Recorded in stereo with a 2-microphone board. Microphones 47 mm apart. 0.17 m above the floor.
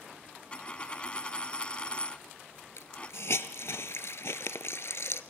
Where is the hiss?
70° left (ahead or behind), 0.9 m.